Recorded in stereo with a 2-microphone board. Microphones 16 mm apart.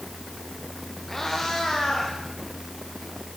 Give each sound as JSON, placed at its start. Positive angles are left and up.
{"t": 1.1, "sound": "a cat meowing", "side_deg": 20, "distance_m": 9.0}